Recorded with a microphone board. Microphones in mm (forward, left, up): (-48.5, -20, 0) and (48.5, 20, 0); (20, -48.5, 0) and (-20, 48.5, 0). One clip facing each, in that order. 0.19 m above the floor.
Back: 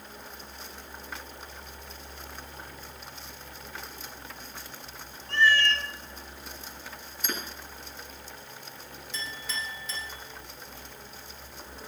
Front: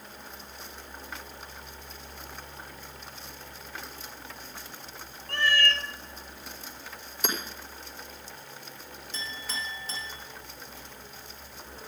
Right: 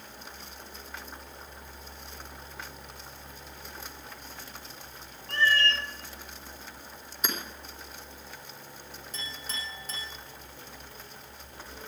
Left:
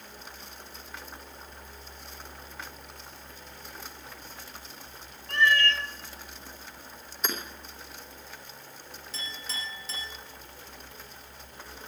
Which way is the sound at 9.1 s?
30° right.